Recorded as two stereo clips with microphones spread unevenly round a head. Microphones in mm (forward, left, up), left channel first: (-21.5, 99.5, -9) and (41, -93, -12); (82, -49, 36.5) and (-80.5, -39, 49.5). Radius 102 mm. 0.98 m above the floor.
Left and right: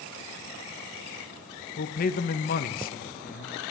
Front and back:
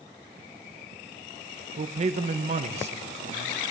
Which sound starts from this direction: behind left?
A man speaking, at 1.8 s.